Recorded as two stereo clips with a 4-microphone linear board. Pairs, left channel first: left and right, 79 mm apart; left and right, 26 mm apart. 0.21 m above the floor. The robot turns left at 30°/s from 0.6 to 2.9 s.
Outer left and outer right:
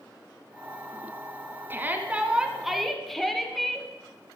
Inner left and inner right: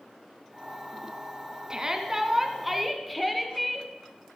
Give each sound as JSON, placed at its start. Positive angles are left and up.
{"t": 1.7, "sound": "a shout", "azimuth_deg": -145, "distance_m": 1.9}